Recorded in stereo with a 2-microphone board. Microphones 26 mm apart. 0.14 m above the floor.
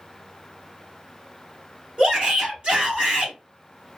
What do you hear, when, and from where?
2.0 s a shout: 35° right (ahead or behind), 1.7 m